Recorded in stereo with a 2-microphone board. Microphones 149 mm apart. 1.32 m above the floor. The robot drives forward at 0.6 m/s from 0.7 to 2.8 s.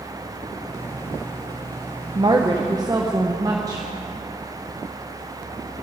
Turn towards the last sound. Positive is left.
turn(degrees=-25)  # may be behind; listen again after turning